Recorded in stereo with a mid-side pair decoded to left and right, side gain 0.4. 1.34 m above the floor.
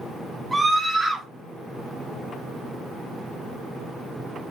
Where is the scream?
15° right, 1.1 m.